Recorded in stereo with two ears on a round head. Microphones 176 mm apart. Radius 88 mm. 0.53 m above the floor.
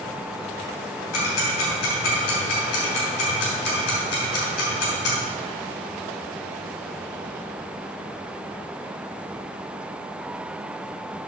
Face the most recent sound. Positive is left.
turn(degrees=55)  # may be behind; listen again after turning